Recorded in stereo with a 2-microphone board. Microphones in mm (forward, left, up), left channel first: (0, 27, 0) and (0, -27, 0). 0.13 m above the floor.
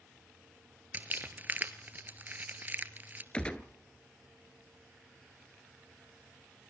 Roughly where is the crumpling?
Right.